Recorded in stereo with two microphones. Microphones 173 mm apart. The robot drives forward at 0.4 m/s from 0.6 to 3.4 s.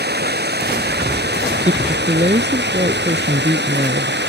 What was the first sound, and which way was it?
Running water, 70° right (ahead or behind).